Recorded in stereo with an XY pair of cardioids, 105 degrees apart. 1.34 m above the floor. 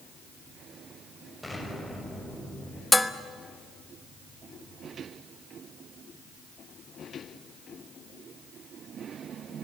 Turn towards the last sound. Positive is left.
turn(degrees=5)